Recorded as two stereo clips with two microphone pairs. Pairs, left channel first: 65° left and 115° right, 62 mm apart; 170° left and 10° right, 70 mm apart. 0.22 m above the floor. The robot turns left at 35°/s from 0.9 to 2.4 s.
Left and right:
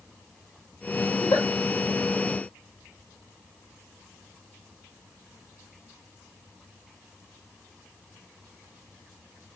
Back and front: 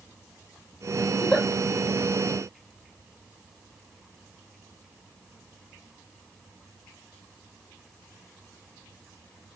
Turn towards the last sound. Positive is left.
turn(degrees=40)